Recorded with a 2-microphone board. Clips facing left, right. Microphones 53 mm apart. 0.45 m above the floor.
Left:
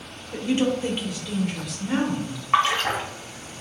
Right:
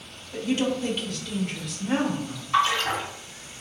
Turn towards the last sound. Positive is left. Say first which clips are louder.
# left 2 dB
turn(degrees=50)  # may be behind; listen again after turning